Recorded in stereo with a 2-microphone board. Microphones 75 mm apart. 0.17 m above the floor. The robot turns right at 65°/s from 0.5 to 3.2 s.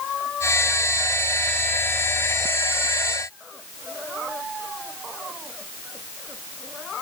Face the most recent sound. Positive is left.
No sound to turn to.